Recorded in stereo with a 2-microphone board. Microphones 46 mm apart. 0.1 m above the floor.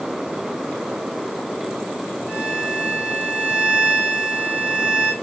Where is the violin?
15° right (ahead or behind), 7 m.